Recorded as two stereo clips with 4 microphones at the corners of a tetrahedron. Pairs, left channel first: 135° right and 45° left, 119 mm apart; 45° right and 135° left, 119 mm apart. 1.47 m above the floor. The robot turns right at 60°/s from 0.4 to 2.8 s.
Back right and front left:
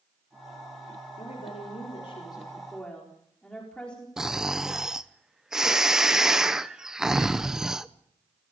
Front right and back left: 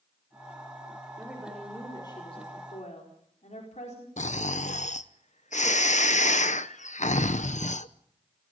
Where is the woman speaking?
150° right, 4.5 m; by 4.1 s 55° right, 4.5 m.